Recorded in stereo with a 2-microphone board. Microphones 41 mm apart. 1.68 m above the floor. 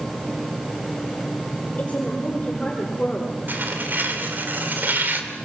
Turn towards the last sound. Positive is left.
turn(degrees=-50)  # may be behind; listen again after turning